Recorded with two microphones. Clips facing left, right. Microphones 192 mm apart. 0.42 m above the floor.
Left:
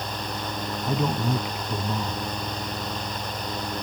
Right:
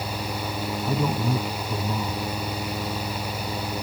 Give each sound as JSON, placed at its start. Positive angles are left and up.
{"t": 0.8, "sound": "a man speaking", "side_deg": 0}